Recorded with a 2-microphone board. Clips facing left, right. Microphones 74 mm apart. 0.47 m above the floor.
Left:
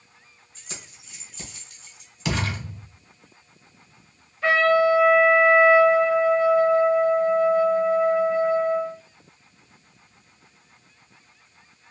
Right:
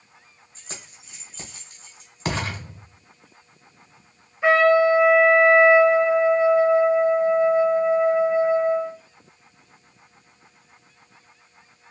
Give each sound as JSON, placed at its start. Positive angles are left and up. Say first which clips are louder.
{"t": 0.6, "sound": "keys jangling", "louder": "right 1 dB", "side_deg": -40, "distance_m": 1.4}
{"t": 2.2, "sound": "a thud", "louder": "even", "side_deg": -40, "distance_m": 1.2}
{"t": 4.4, "sound": "a trumpet", "louder": "right 2 dB", "side_deg": -15, "distance_m": 0.9}